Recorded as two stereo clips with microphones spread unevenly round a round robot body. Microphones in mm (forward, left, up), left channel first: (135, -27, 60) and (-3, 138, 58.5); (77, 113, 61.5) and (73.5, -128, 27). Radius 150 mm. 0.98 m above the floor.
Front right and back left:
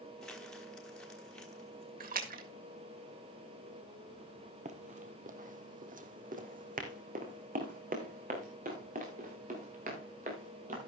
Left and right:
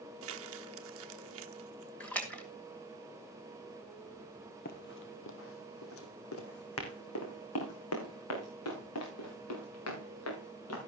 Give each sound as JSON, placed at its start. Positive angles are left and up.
{"t": 0.2, "sound": "crumpling", "azimuth_deg": -135, "distance_m": 0.9}
{"t": 2.0, "sound": "a splash", "azimuth_deg": 175, "distance_m": 1.9}
{"t": 4.7, "sound": "running footsteps", "azimuth_deg": 90, "distance_m": 1.3}